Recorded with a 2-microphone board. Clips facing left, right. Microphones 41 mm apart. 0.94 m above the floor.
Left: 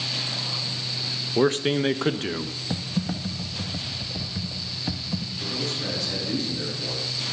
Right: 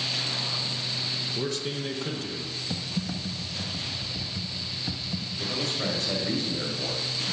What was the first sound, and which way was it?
A man speaking, 45° left (ahead or behind).